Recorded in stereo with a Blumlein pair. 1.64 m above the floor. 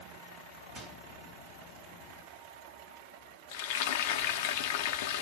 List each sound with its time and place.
0.8 s a microwave: 10° right, 0.9 m
3.5 s frying: 50° left, 0.6 m